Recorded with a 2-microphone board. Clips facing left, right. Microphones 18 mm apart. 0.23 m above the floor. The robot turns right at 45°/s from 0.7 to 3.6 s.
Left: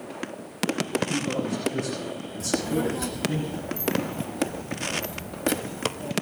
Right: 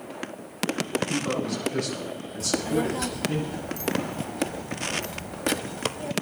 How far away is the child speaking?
About 0.6 m.